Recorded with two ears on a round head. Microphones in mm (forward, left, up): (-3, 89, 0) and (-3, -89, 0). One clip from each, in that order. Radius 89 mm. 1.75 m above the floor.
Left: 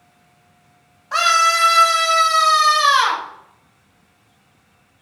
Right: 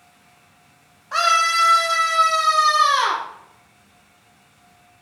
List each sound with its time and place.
1.1 s a scream: 15° left (ahead or behind), 1.9 m; by 3.2 s 75° left (ahead or behind), 3.5 m